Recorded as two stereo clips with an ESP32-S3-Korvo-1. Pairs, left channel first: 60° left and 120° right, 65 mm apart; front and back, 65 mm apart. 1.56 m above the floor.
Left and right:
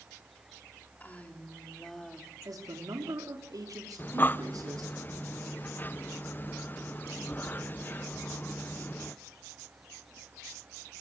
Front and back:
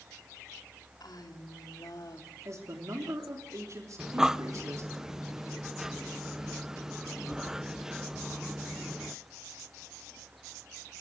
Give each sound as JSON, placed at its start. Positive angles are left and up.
{"t": 1.0, "sound": "a woman speaking", "azimuth_deg": -5, "distance_m": 4.0}
{"t": 2.5, "sound": "a man speaking", "azimuth_deg": -140, "distance_m": 3.5}
{"t": 4.0, "sound": "breathing", "azimuth_deg": 105, "distance_m": 0.5}